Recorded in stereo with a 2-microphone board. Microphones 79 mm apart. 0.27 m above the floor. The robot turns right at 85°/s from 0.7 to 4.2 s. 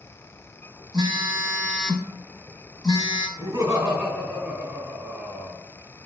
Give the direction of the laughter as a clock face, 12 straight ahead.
3 o'clock.